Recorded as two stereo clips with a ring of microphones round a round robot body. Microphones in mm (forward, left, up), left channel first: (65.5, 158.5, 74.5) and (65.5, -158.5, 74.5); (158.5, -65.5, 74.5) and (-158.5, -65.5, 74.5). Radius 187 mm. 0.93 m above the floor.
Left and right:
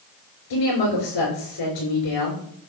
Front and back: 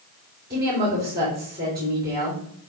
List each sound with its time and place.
0.5 s a woman speaking: 115° left, 3.5 m